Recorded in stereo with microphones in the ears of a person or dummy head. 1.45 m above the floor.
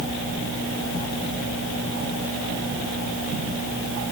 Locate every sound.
Only background noise.